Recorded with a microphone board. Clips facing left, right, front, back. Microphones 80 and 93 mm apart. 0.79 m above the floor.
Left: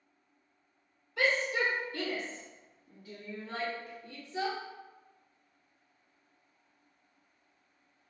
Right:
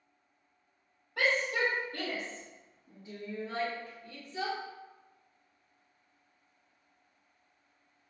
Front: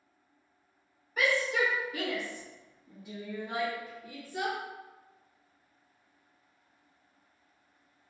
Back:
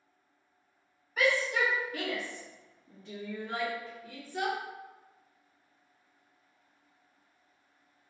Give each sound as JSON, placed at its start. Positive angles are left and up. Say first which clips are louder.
{"t": 1.2, "sound": "a shout", "louder": "even, even", "azimuth_deg": -85, "distance_m": 1.5}